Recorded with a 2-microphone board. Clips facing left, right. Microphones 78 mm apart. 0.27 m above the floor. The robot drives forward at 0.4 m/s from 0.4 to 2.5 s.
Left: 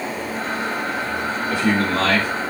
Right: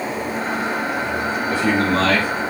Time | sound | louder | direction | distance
1.5 | a man speaking | right 1 dB | 40° right (ahead or behind) | 2.5 m